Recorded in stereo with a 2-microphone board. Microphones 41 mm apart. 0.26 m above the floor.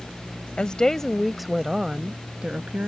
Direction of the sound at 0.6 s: 25° left (ahead or behind).